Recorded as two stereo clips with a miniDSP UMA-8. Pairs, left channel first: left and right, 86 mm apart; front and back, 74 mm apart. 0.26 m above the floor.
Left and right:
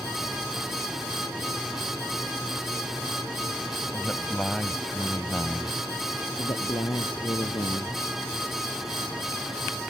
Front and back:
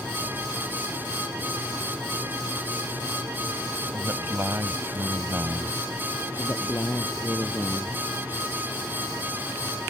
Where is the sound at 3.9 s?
160° left.